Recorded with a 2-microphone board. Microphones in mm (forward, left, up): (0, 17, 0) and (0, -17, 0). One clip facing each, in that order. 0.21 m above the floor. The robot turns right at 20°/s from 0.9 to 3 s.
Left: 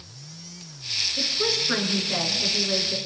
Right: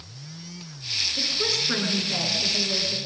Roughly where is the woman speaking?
Ahead.